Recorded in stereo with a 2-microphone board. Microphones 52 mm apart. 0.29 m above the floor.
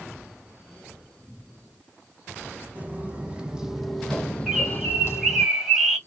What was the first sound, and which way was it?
Footsteps, 30° right (ahead or behind).